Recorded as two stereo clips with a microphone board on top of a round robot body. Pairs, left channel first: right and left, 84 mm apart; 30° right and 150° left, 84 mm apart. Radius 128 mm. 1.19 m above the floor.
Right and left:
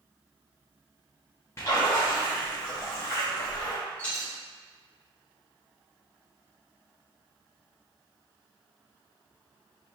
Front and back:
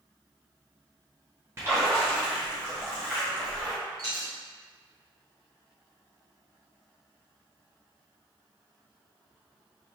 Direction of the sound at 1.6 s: 150° right.